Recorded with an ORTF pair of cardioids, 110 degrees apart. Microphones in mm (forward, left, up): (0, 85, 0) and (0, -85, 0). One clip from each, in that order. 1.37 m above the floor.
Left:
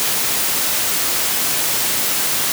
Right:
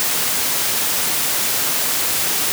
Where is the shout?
I don't hear a shout.